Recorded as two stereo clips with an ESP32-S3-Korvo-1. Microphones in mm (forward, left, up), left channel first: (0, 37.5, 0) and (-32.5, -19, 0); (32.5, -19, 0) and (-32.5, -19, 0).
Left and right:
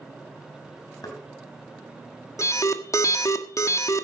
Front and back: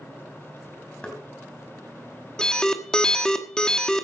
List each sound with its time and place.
1.0 s knocking: 75° left, 4 m
2.4 s an alarm: 75° left, 1.4 m